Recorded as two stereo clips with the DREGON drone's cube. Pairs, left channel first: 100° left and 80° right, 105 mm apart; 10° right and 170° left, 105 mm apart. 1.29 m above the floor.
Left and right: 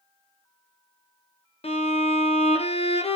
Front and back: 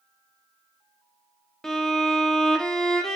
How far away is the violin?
About 0.6 m.